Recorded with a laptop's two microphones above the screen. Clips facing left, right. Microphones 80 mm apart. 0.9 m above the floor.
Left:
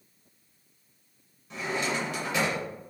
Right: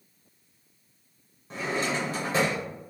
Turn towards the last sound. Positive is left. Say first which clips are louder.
# right 1 dB
turn(degrees=-35)  # may be behind; listen again after turning